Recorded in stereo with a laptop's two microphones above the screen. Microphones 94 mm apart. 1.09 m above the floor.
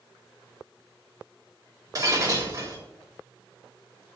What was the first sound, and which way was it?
Breaking glass, 40° right (ahead or behind).